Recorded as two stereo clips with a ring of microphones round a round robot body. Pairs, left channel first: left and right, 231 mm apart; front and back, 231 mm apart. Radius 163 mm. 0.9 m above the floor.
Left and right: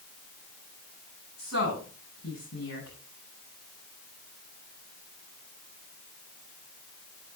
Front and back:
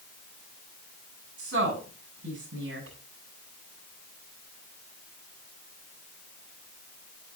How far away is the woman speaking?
About 8.5 m.